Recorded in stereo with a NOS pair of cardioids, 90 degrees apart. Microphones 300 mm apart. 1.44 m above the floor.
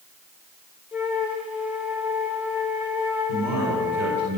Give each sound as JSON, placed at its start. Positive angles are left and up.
{"t": 0.9, "sound": "a flute", "azimuth_deg": -5, "distance_m": 3.5}
{"t": 3.3, "sound": "a man speaking", "azimuth_deg": -65, "distance_m": 5.5}